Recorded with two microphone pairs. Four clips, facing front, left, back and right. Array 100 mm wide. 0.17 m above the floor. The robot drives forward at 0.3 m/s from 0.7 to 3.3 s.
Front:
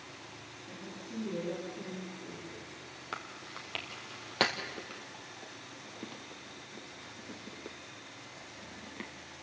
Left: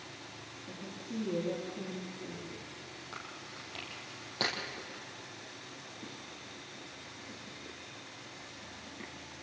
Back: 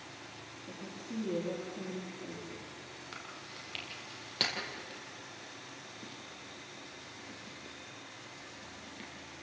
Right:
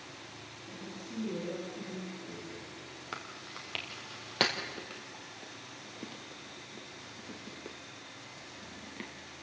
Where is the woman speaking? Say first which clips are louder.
Left 2 dB, back 2 dB; 150° left, 8 m; by 2.7 s 155° left, 8.5 m.